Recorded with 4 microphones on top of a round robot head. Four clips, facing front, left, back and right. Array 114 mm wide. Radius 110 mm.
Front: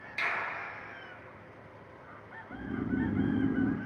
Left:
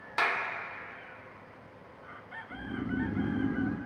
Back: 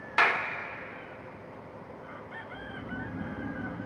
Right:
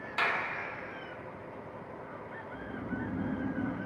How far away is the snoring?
About 1.7 m.